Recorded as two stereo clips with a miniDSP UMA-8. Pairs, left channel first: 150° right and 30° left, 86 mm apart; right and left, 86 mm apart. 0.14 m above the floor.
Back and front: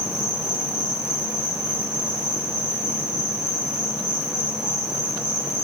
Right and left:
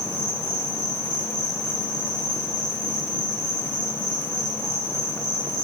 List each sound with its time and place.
0.0 s an insect: 95° left, 2.0 m